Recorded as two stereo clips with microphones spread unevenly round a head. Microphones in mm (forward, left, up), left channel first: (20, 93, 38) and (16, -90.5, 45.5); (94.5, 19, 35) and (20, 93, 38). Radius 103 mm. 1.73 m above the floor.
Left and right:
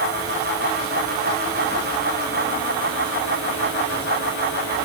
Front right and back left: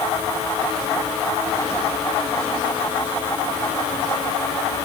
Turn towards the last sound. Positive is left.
No sound to turn to.